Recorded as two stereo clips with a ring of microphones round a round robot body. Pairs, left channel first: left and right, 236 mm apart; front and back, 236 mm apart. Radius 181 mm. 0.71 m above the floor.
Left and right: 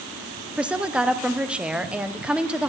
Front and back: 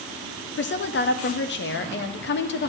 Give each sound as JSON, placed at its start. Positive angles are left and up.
{"t": 0.6, "sound": "a woman speaking", "azimuth_deg": -5, "distance_m": 0.6}